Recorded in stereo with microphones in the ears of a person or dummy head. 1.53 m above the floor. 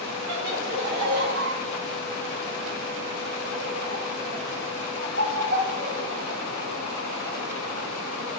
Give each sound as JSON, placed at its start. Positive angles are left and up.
{"t": 0.3, "sound": "laughter", "side_deg": -70, "distance_m": 5.0}